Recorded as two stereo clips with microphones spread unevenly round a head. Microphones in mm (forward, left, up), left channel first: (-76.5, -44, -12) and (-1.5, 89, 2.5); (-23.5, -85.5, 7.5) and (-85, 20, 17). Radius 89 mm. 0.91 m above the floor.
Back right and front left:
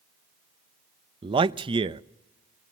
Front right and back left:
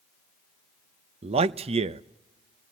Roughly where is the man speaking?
Left.